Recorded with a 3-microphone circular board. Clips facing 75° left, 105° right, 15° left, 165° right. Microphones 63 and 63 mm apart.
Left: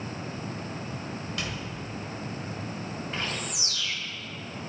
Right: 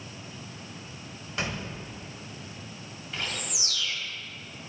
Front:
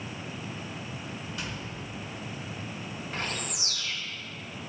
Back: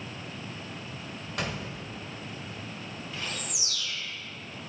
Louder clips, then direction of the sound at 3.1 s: Right 1 dB, front 4 dB; 30° left.